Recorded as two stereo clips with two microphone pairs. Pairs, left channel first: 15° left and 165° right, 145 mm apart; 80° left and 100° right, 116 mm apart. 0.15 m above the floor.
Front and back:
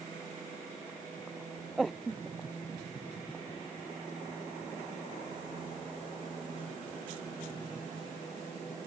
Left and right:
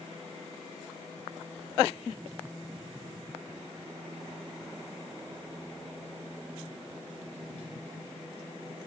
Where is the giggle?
No giggle in this recording.